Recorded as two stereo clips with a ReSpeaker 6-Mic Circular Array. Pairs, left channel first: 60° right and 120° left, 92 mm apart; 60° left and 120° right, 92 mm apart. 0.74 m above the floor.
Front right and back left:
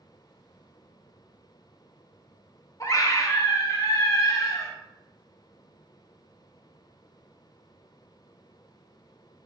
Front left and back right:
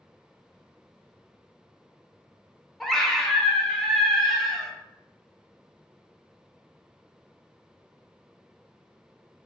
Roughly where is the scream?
Ahead right.